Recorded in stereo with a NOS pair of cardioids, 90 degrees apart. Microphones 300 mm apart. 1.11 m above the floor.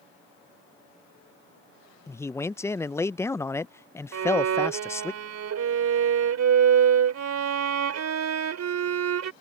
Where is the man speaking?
10° left.